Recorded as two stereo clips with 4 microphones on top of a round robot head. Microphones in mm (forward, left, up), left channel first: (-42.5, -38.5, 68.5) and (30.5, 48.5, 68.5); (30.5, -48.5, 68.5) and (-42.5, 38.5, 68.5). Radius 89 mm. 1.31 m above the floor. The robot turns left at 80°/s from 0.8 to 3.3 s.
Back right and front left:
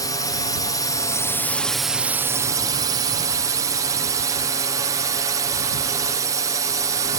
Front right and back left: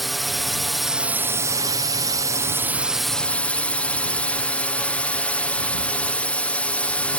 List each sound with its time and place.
0.0 s a drone: 140° right; by 7.2 s 20° left